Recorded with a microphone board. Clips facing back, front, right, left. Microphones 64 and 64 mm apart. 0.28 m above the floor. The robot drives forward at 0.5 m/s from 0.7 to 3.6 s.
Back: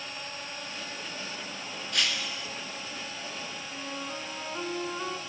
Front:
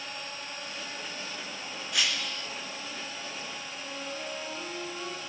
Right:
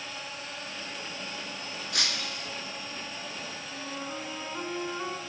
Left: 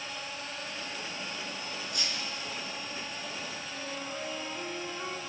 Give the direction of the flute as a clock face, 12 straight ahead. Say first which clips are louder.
Back 3 dB, right 3 dB; 5 o'clock.